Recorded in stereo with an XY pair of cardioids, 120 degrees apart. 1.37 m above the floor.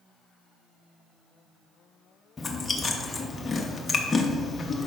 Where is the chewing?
20° left, 1.0 m.